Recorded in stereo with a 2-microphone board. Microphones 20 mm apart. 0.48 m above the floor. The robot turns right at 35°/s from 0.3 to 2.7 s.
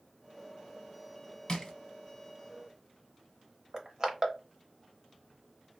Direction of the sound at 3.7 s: 35° right (ahead or behind).